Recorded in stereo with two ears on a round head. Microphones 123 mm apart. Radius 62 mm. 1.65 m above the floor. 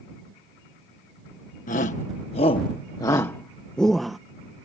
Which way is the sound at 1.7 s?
65° left (ahead or behind).